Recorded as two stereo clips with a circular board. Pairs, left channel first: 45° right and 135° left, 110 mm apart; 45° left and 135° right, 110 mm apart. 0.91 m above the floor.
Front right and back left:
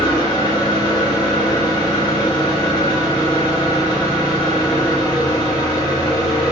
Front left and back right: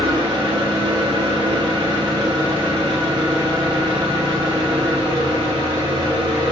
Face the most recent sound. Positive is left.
turn(degrees=-95)